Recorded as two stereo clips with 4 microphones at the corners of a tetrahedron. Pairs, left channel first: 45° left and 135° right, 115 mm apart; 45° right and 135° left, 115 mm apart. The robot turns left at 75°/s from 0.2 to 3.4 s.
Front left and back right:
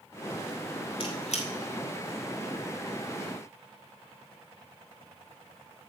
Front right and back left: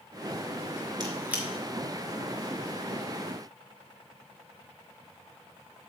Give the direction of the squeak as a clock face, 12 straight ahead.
9 o'clock.